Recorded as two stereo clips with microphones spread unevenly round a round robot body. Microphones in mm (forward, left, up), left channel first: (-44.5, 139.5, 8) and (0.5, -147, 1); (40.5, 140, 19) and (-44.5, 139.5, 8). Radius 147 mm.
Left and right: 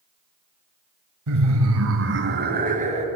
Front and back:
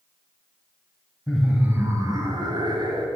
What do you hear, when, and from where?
1.3 s laughter: 90° right, 1.8 m; by 3.1 s 150° right, 2.5 m